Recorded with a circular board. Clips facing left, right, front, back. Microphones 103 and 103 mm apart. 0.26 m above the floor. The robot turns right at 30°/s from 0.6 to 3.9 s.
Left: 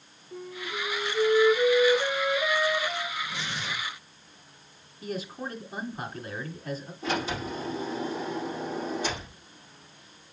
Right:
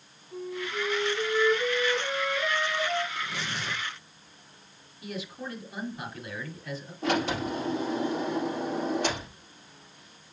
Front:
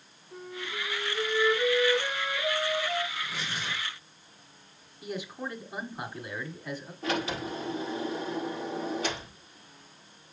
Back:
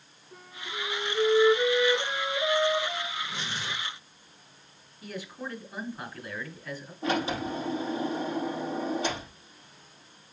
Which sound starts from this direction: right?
Tearing paper, at 3.1 s.